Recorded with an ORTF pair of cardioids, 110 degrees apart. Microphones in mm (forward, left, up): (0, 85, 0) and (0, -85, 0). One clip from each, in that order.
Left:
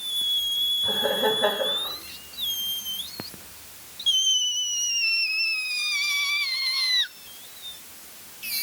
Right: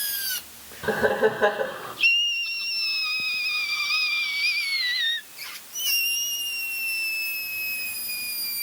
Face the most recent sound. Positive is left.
turn(degrees=-70)